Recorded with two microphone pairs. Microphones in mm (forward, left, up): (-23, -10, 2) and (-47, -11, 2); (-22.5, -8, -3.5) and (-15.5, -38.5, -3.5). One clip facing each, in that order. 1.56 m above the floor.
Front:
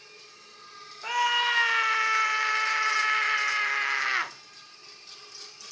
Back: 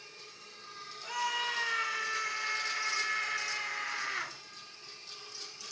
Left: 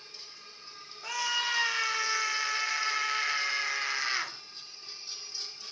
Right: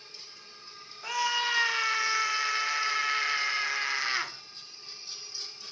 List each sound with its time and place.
1.0 s a scream: 5° left, 1.6 m